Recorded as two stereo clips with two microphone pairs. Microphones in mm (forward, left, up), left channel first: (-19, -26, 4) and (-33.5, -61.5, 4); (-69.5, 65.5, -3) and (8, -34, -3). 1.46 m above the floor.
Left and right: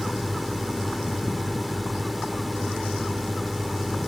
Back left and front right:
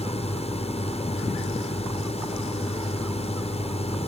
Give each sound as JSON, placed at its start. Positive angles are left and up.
{"t": 0.0, "sound": "a drone", "azimuth_deg": 155}